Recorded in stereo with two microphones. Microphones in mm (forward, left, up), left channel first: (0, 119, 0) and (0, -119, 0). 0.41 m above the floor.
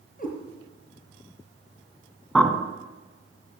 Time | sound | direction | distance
0.2 | a cat meowing | 35° left (ahead or behind) | 3.5 m
2.4 | a bird | centre (ahead or behind) | 1.3 m